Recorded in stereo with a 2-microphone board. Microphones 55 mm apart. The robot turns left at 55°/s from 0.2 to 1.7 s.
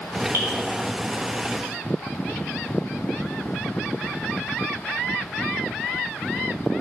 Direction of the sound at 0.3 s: 50° right (ahead or behind).